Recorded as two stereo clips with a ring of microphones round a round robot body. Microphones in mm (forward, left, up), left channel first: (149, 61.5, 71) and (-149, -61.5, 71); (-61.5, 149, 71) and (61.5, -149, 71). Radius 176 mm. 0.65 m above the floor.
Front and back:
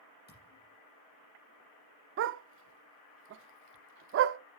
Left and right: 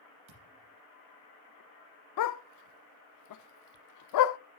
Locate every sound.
0.3 s a thud: 40° right, 6.5 m
2.2 s a dog barking: 150° left, 0.6 m